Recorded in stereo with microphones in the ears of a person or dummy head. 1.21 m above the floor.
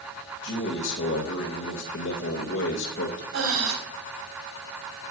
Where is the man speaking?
65° left (ahead or behind), 1.8 m.